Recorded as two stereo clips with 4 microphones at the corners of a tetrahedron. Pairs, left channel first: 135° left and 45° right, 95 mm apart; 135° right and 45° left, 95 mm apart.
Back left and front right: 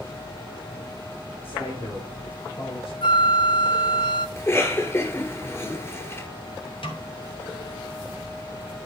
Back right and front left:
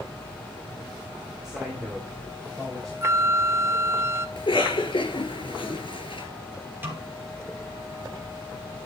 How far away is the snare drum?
About 3 m.